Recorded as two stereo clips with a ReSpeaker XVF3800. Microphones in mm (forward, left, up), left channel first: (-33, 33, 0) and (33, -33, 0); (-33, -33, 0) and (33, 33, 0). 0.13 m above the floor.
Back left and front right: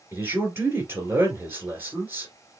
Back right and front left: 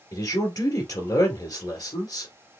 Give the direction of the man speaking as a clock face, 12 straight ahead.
3 o'clock.